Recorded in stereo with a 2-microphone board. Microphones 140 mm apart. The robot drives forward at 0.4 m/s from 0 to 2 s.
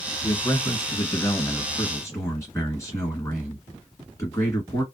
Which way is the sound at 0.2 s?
30° left (ahead or behind).